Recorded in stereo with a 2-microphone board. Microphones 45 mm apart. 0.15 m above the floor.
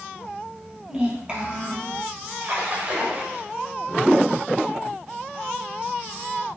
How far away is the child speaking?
About 3 m.